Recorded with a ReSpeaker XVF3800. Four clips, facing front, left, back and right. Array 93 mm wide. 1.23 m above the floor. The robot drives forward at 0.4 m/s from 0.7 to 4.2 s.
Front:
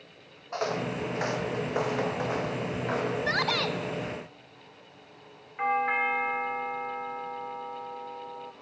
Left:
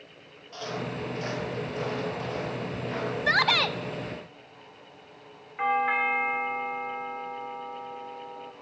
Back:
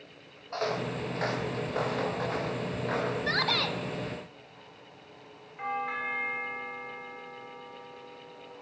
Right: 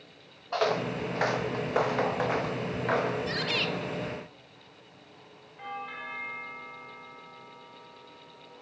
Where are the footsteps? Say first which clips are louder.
Right 6 dB, front 1 dB; 80° right, 1.9 m; by 3.2 s 75° right, 5 m.